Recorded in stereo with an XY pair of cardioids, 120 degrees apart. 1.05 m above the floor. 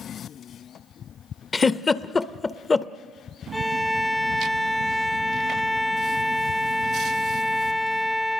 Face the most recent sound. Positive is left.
turn(degrees=5)